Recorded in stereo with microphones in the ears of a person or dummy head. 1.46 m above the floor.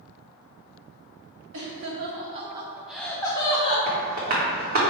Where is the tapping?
50° right (ahead or behind), 0.9 m.